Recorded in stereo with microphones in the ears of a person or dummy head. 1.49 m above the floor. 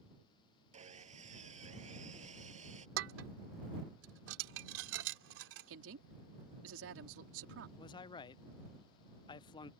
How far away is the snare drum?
No snare drum in this recording.